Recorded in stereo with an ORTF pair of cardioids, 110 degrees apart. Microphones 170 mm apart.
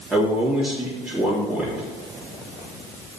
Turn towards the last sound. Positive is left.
turn(degrees=0)